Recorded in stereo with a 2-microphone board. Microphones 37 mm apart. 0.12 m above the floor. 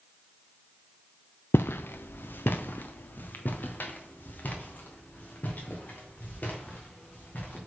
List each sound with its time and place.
1.5 s footsteps: 85° left, 0.5 m; by 7.6 s 45° left (ahead or behind), 4 m